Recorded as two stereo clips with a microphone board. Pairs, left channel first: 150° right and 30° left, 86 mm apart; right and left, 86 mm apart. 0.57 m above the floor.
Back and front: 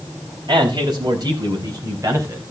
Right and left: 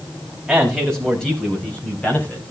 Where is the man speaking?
Straight ahead, 3.5 m; by 2.4 s 25° right, 3.5 m.